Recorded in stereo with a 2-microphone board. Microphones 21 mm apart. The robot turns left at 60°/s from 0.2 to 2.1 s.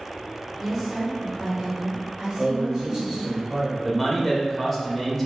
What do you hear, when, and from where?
0.6 s a woman speaking: straight ahead, 0.9 m; by 3.4 s 95° right, 0.9 m
2.4 s a man speaking: centre (ahead or behind), 1.6 m
3.8 s a man speaking: 5° left (ahead or behind), 0.9 m